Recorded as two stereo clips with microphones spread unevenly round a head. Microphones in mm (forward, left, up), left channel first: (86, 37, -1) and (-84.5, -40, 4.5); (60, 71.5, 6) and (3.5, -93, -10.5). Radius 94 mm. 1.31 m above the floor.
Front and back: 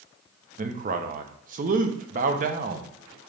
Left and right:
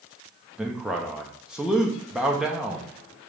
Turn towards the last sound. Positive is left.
turn(degrees=170)